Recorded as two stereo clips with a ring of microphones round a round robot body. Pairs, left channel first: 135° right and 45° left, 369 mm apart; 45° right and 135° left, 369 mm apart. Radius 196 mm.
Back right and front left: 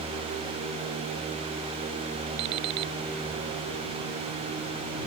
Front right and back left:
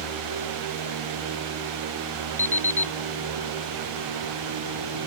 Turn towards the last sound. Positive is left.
turn(degrees=40)